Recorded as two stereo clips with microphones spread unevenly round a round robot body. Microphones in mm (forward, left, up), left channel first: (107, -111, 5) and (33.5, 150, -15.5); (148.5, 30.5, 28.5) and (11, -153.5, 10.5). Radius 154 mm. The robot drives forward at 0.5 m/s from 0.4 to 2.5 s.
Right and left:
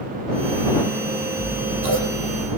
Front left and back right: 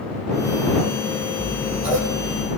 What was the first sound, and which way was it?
Scissors, 130° left.